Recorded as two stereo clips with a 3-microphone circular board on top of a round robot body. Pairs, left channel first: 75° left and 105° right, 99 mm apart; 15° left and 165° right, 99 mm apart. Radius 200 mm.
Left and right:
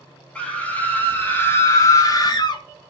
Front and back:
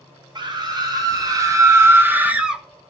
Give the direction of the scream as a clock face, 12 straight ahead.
7 o'clock.